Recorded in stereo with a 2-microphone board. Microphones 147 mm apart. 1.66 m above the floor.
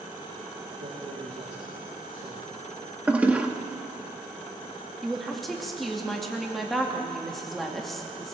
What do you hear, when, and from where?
0.8 s a man speaking: 55° right (ahead or behind), 2.5 m
3.1 s a toilet flushing: 10° right (ahead or behind), 1.3 m
5.0 s a woman speaking: centre (ahead or behind), 2.5 m